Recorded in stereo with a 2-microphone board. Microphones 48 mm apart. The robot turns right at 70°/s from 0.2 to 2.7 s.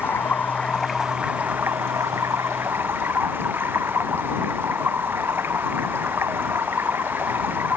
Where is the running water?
130° left; by 7.8 s 55° right.